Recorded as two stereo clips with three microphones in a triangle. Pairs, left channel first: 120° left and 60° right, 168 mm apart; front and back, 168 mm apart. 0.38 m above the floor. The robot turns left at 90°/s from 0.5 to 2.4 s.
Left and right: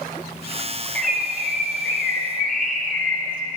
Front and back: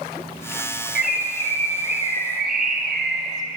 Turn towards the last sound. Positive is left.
turn(degrees=-95)